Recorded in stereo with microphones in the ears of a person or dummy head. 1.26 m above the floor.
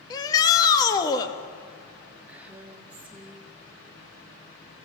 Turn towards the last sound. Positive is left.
turn(degrees=-10)  # may be behind; listen again after turning